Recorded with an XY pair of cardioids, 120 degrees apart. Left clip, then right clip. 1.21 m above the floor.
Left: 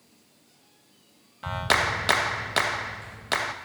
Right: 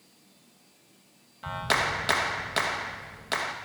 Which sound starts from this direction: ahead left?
A clap, at 1.4 s.